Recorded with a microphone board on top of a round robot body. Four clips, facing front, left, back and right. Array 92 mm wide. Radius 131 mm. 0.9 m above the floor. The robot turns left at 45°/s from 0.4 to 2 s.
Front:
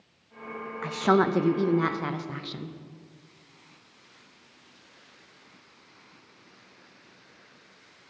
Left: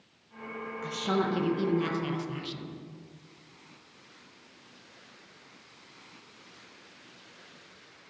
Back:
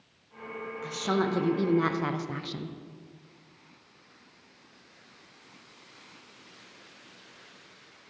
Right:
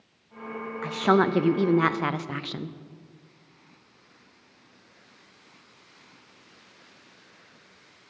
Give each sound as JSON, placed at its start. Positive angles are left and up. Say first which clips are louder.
{"t": 0.8, "sound": "a woman speaking", "louder": "right 8 dB, front 6 dB", "azimuth_deg": -45, "distance_m": 0.6}